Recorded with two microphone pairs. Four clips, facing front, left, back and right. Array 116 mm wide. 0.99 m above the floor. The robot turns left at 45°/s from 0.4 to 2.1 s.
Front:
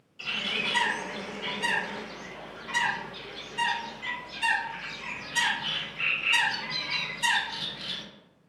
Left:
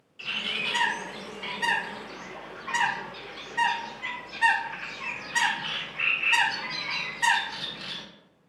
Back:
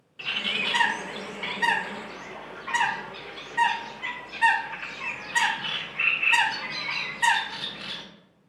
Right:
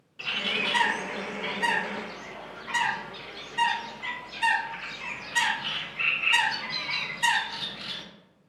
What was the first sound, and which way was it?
A bird, 145° right.